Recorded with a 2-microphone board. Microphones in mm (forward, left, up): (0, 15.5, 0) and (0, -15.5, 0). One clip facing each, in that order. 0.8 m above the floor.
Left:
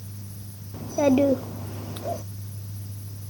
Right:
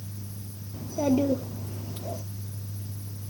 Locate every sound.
0.7 s a child speaking: 85° left, 1.0 m